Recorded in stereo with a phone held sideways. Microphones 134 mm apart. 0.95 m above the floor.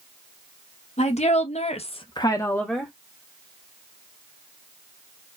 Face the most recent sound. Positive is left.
turn(degrees=-5)  # may be behind; listen again after turning